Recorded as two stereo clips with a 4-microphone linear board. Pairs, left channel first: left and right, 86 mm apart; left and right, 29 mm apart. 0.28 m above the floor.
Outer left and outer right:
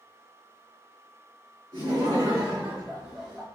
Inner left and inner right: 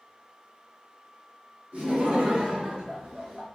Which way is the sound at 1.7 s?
40° right (ahead or behind).